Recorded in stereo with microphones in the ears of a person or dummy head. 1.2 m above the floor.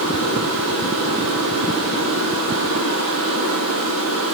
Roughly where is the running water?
Right.